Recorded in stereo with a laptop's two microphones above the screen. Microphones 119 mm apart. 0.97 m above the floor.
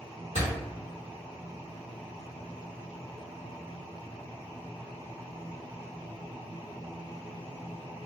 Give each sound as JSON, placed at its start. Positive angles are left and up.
{"t": 0.3, "sound": "a door slam", "side_deg": 75, "distance_m": 1.7}